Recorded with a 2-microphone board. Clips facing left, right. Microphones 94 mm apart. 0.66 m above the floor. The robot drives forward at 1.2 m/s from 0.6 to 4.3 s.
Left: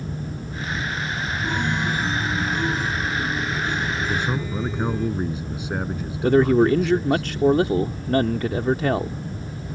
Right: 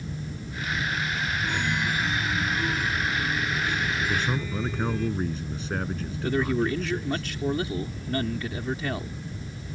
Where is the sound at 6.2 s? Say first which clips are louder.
Left 9 dB; 60° left (ahead or behind).